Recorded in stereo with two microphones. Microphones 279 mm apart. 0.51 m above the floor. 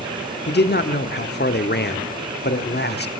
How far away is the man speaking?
About 0.9 m.